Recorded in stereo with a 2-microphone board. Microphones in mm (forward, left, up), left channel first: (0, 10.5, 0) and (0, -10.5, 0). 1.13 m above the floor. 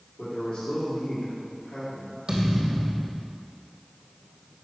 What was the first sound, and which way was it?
A man speaking, 85° left.